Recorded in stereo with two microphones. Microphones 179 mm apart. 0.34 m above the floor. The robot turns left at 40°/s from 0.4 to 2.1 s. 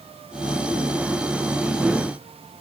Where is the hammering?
I don't hear hammering.